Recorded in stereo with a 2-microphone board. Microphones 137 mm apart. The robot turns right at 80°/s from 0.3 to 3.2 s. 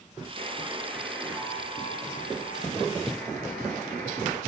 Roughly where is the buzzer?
Ahead right.